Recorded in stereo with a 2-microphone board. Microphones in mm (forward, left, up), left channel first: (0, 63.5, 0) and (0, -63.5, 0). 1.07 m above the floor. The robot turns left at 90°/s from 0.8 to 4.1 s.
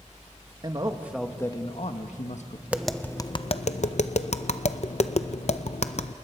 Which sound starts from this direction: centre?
Tapping, at 2.7 s.